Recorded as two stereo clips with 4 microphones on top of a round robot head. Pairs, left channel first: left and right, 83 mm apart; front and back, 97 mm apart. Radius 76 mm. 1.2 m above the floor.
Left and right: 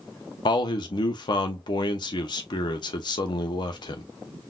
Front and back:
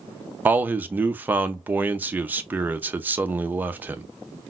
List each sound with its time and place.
0.5 s a man speaking: 110° left, 0.6 m